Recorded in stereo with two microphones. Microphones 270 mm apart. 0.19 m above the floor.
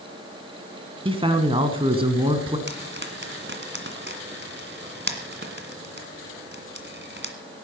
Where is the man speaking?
20° right (ahead or behind), 1.6 m.